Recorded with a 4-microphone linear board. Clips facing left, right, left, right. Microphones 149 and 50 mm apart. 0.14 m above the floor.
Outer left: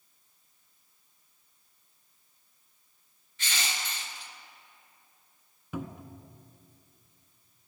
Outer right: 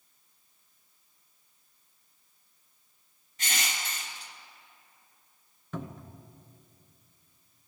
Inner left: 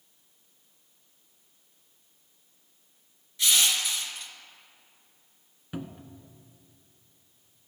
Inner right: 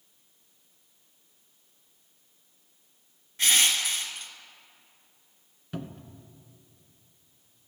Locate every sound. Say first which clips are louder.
3.4 s crushing: outer right 1 dB, inner right 1 dB; 40° right (ahead or behind), 1.6 m
5.7 s a cupboard door: outer left 2 dB, even; 10° left (ahead or behind), 0.7 m